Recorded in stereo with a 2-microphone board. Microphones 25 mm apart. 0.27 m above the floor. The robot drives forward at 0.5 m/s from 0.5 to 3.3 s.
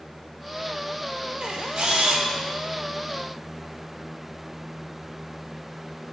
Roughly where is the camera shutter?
Right.